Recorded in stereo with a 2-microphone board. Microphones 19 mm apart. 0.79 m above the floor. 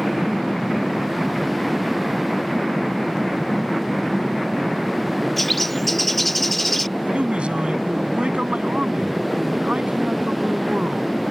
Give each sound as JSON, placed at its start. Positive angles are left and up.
{"t": 5.4, "sound": "a bird", "side_deg": 5}
{"t": 7.0, "sound": "a man speaking", "side_deg": -85}